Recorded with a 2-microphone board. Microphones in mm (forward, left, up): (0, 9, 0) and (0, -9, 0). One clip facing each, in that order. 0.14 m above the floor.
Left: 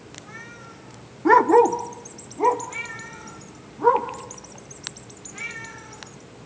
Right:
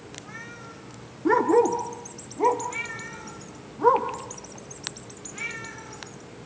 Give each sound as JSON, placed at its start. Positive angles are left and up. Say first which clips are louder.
{"t": 1.2, "sound": "a dog barking", "louder": "left 5 dB", "side_deg": 30, "distance_m": 0.7}